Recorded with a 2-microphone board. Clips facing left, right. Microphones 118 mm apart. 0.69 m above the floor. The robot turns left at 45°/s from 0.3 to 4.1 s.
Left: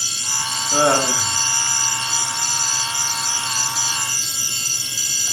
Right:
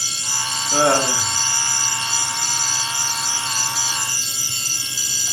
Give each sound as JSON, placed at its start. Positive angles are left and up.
{"t": 0.7, "sound": "laughter", "azimuth_deg": 170, "distance_m": 1.5}